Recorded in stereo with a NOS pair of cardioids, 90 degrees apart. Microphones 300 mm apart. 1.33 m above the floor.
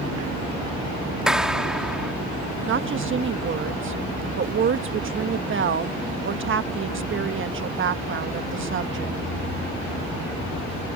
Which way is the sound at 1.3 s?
Straight ahead.